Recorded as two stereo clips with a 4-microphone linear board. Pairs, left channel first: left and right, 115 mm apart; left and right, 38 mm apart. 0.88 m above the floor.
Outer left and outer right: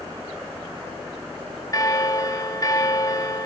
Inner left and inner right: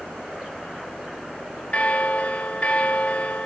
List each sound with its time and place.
1.7 s a bell: 35° left (ahead or behind), 1.0 m